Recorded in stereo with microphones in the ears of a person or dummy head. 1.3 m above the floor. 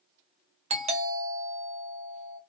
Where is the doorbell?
30° right (ahead or behind), 0.5 m.